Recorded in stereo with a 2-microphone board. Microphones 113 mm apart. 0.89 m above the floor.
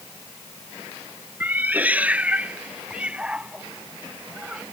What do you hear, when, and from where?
1.4 s a cat meowing: 15° right (ahead or behind); by 4.6 s 5° right (ahead or behind)